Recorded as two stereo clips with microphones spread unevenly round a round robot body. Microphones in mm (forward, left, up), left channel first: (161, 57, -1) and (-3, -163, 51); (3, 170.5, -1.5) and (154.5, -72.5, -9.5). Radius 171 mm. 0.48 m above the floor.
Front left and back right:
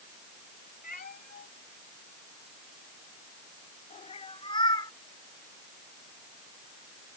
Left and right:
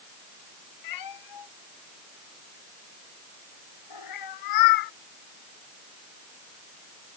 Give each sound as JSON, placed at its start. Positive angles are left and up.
{"t": 0.8, "sound": "a cat meowing", "azimuth_deg": 120}